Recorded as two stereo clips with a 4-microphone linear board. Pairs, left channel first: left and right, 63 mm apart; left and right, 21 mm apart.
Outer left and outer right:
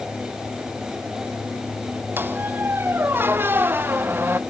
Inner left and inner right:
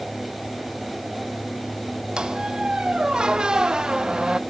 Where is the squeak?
35° right (ahead or behind), 0.5 m.